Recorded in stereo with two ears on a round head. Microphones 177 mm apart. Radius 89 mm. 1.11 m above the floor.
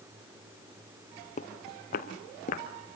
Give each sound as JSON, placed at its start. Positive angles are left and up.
{"t": 1.4, "sound": "footsteps", "side_deg": 40, "distance_m": 1.8}